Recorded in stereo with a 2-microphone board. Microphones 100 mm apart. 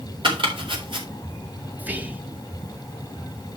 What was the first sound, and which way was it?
Chopping, 60° right (ahead or behind).